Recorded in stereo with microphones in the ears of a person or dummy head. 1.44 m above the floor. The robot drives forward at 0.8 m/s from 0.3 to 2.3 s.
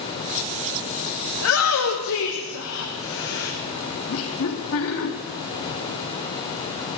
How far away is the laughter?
About 2.5 m.